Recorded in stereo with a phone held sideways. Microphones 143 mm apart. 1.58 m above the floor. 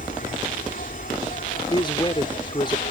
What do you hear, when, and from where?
0.0 s an insect: 80° left
1.7 s a man speaking: 35° left (ahead or behind)